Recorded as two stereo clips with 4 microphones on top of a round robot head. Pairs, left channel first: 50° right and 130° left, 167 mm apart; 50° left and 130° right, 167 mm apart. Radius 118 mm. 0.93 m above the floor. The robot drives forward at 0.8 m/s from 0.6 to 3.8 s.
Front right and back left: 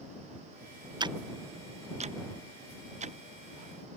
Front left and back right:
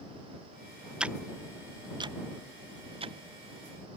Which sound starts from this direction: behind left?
Ticking, at 1.0 s.